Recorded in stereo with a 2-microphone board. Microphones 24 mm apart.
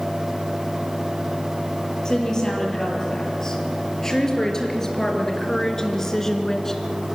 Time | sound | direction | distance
2.0 | a woman speaking | 25° left (ahead or behind) | 5.5 m